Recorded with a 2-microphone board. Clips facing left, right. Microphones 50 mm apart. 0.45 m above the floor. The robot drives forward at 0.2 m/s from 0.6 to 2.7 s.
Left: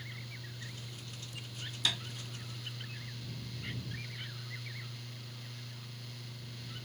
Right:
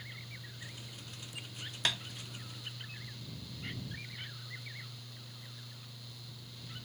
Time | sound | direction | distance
1.9 | tapping | 45° right (ahead or behind) | 0.7 m